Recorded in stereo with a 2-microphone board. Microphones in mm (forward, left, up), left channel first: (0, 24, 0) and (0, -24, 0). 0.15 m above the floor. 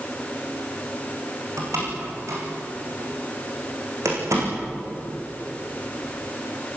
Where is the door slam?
85° right, 8 m.